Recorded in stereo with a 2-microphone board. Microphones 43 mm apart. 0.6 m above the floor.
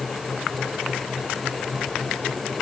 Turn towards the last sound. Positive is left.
No sound to turn to.